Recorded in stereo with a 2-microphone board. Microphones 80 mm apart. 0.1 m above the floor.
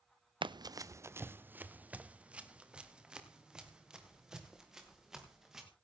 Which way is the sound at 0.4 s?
70° right (ahead or behind).